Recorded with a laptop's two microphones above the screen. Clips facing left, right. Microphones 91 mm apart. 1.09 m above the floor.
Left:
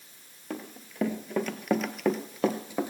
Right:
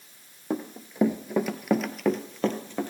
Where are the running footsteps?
25° right (ahead or behind), 1.2 m; by 2.9 s 10° left (ahead or behind), 1.7 m.